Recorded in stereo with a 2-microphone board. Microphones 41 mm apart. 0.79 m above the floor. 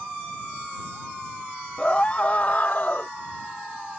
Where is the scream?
30° left (ahead or behind); by 3.1 s 50° left (ahead or behind).